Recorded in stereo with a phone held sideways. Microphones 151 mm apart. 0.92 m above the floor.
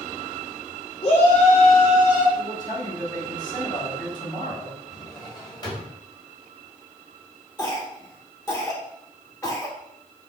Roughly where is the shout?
Left.